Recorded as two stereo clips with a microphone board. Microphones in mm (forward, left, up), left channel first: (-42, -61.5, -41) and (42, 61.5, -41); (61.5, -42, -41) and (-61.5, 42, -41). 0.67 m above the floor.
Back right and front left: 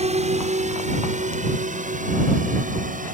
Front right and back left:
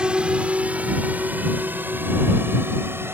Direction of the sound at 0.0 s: 65° left.